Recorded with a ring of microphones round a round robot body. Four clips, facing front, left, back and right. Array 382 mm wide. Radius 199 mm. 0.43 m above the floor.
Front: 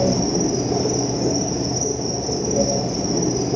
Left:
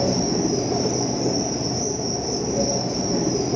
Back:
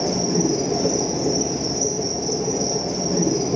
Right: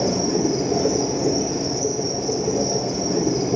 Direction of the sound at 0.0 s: 70° right.